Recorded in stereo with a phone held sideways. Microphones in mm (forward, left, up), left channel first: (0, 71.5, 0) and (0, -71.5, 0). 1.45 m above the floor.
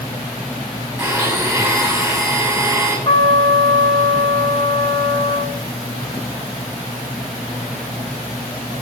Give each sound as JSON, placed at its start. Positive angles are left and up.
{"t": 1.0, "sound": "a blender", "side_deg": -20, "distance_m": 9.0}
{"t": 3.0, "sound": "a trumpet", "side_deg": 45, "distance_m": 2.5}